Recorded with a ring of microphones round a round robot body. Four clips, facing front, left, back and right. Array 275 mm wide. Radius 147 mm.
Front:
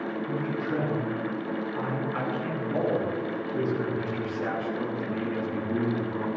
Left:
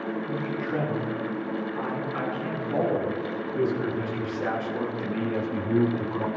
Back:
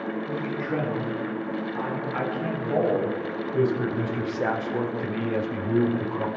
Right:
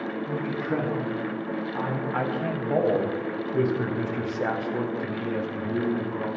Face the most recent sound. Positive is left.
turn(degrees=160)